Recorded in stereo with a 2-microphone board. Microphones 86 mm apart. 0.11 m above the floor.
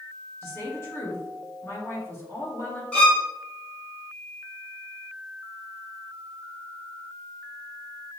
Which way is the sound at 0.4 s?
30° left (ahead or behind).